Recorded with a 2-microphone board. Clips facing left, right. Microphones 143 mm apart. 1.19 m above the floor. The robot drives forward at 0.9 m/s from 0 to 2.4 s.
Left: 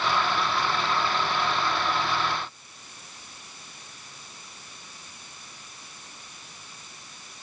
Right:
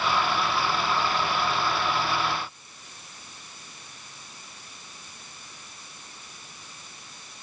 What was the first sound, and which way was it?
Only background noise.